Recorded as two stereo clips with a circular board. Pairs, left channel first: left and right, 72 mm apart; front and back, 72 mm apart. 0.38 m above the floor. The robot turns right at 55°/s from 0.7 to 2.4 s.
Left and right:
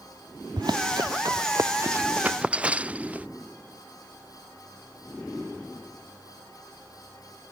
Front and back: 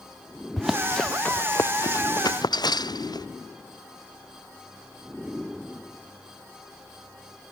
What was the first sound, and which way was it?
Running footsteps, 95° right.